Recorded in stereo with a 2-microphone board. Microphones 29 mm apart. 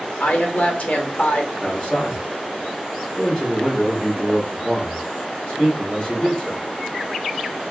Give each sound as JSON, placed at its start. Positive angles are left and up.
{"t": 0.2, "sound": "a woman speaking", "side_deg": 60, "distance_m": 1.1}
{"t": 1.6, "sound": "a man speaking", "side_deg": 20, "distance_m": 1.9}